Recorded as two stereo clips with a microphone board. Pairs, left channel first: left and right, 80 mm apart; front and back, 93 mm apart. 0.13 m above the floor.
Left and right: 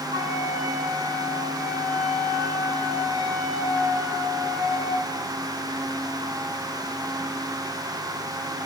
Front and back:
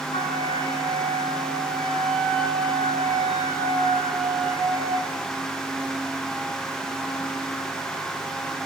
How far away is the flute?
About 8 m.